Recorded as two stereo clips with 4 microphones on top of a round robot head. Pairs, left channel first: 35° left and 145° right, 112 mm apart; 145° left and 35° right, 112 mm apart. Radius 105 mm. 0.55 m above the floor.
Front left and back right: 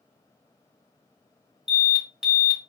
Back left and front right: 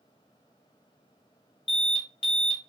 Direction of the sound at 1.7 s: 135° left.